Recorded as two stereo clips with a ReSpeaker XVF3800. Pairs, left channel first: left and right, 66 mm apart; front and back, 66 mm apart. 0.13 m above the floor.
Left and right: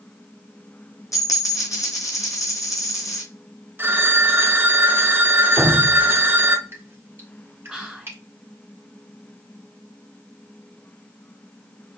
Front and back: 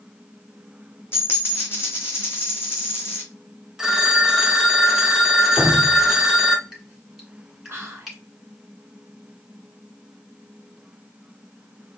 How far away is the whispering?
About 1.3 m.